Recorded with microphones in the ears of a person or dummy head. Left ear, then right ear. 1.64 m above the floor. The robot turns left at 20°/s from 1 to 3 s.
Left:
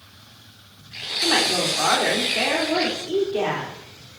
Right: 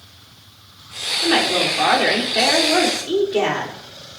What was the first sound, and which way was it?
A woman speaking, 5° right.